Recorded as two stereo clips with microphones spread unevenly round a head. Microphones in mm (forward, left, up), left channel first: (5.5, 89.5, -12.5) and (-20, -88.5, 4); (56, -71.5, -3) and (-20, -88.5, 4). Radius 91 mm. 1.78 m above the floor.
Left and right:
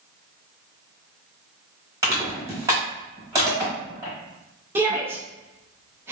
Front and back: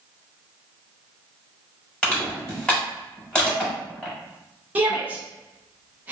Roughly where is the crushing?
Ahead right.